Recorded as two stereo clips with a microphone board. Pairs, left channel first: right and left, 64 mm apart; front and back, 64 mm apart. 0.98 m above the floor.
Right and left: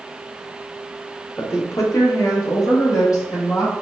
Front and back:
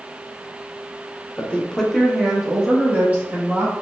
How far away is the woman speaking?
About 0.9 m.